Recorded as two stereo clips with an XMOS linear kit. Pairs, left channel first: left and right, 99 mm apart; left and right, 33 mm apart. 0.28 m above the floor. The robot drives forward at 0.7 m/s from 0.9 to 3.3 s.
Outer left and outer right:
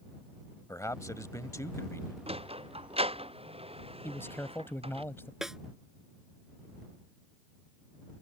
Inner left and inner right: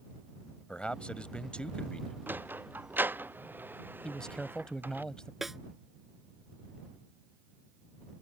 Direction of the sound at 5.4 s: 5° right (ahead or behind).